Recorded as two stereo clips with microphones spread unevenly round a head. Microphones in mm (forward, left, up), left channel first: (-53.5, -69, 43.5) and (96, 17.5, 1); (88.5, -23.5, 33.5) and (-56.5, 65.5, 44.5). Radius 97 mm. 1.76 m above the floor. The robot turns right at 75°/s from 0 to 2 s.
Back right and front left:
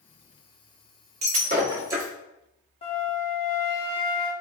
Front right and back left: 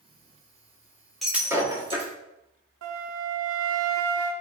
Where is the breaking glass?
60° left, 1.5 m; by 2.1 s 120° left, 1.5 m.